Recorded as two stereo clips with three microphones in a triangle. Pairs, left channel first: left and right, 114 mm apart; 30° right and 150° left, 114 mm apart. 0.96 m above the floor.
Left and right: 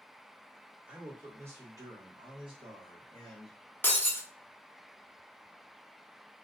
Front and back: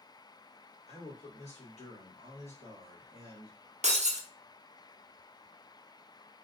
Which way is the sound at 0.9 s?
10° right.